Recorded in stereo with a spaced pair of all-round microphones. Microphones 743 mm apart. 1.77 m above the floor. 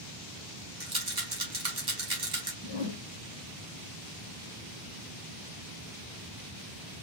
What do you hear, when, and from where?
0.8 s a rattle: 30° right (ahead or behind), 1.4 m
2.6 s a whoosh: 30° left (ahead or behind), 1.4 m